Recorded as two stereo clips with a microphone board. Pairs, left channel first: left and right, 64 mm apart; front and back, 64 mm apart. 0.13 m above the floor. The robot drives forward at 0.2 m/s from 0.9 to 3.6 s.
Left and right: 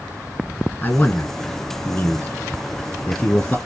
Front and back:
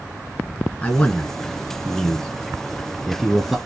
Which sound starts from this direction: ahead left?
A man speaking, at 0.8 s.